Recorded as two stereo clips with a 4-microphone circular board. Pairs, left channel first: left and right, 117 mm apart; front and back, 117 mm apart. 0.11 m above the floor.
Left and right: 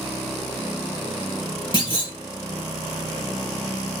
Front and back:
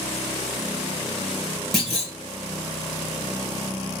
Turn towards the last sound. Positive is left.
turn(degrees=90)